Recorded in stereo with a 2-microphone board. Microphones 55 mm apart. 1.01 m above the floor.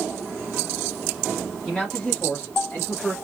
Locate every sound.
1.6 s a man speaking: 5° left (ahead or behind), 1.3 m; by 3.1 s 40° left (ahead or behind), 1.1 m